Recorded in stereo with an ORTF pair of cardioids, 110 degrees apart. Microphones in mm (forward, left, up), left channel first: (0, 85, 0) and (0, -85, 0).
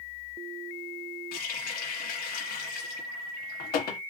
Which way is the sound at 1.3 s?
70° left.